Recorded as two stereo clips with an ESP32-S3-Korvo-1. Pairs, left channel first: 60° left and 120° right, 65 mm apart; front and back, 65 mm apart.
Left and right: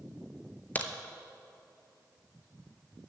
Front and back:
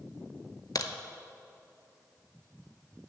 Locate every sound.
0.8 s a crack: straight ahead, 0.6 m